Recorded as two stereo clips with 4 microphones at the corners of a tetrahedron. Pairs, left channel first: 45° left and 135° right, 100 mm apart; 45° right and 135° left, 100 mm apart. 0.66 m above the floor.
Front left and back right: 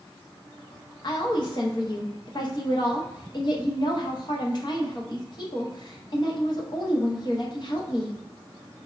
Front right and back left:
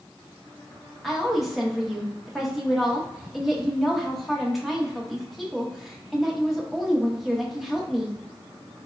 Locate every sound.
1.0 s a woman speaking: 45° left, 0.8 m